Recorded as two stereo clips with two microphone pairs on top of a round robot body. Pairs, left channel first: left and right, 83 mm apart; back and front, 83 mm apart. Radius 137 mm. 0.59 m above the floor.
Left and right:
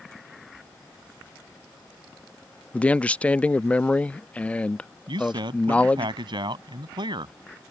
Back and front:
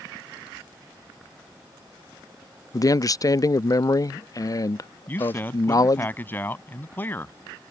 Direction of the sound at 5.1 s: 115° right.